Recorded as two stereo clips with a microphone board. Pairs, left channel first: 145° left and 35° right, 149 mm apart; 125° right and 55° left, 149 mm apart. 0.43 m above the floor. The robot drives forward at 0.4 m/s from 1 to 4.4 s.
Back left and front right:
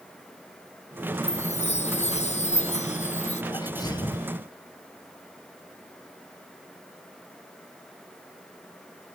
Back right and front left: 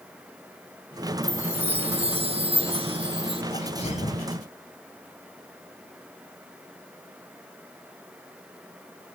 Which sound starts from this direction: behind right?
A sneeze, at 3.5 s.